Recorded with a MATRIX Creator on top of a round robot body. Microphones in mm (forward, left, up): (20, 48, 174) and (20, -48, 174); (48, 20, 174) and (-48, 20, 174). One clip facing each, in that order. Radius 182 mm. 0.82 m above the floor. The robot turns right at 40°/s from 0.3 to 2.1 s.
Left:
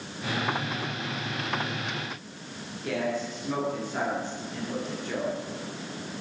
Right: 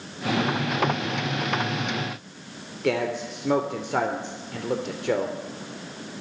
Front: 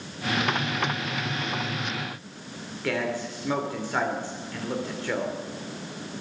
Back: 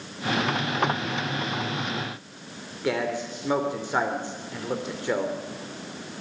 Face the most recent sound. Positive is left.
turn(degrees=-110)